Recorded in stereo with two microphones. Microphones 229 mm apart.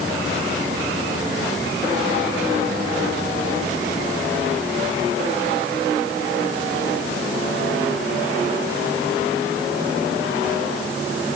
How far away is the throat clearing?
No throat clearing in this recording.